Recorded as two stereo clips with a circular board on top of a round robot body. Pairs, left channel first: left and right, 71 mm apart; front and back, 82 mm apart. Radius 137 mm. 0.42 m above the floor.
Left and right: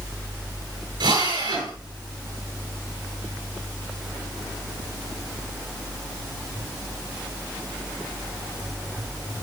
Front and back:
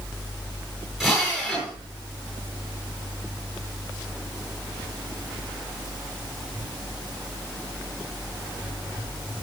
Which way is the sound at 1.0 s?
95° right.